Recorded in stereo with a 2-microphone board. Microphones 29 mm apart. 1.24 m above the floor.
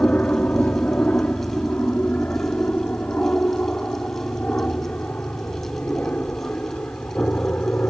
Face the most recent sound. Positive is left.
turn(degrees=70)  # may be behind; listen again after turning